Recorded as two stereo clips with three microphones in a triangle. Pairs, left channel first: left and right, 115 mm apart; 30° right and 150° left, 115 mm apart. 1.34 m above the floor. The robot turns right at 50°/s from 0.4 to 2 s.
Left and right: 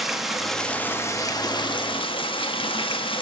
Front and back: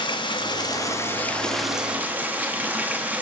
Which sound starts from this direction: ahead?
Running water, at 0.0 s.